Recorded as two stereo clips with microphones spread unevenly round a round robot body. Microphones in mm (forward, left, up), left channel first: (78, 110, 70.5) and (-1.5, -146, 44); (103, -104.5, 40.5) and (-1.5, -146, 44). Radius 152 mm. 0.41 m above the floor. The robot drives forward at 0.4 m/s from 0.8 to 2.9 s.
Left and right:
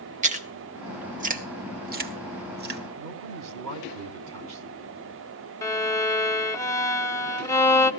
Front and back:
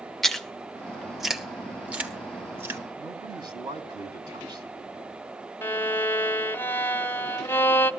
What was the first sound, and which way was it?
Chewing, 65° right.